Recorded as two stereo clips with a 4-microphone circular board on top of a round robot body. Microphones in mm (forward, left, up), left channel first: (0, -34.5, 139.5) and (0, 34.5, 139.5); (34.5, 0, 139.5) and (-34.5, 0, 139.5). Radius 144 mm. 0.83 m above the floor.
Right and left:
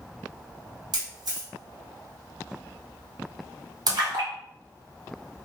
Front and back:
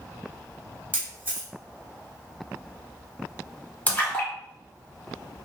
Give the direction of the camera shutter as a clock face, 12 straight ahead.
8 o'clock.